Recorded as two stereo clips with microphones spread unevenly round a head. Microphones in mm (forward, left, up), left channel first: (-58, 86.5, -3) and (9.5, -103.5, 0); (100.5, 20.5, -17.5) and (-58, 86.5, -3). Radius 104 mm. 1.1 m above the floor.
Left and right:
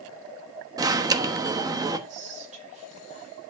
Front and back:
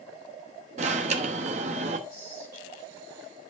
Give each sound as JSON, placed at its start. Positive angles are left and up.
{"t": 0.8, "sound": "an alarm", "azimuth_deg": -145, "distance_m": 1.1}
{"t": 2.1, "sound": "whispering", "azimuth_deg": -125, "distance_m": 4.0}